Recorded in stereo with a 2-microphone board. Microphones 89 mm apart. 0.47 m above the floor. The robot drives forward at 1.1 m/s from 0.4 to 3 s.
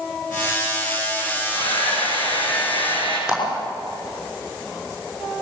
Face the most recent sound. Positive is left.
turn(degrees=-5)  # may be behind; listen again after turning